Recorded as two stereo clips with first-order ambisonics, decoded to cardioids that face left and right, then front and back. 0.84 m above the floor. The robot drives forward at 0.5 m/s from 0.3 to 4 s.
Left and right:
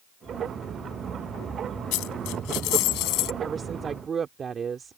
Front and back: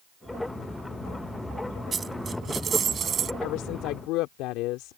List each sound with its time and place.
1.9 s a dropped coin: 105° left; by 3.3 s 120° left
3.4 s a woman speaking: 20° right; by 5.0 s 25° right